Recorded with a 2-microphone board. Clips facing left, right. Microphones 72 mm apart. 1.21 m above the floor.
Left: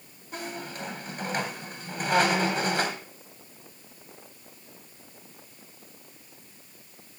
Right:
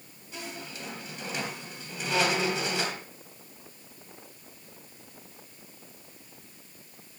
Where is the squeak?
55° left (ahead or behind), 2.5 m.